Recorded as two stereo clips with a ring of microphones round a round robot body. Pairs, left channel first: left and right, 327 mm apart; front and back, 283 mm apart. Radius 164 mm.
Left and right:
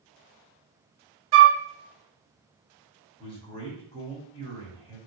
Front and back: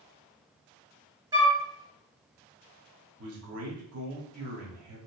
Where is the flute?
105° right, 0.5 m.